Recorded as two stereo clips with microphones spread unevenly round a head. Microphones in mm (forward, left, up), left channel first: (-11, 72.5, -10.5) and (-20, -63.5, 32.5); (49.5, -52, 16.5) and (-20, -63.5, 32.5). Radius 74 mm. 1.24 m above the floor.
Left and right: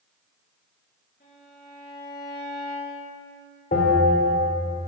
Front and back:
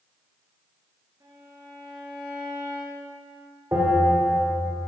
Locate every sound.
1.2 s a violin: 125° left, 6 m
3.7 s a bell: 120° left, 4 m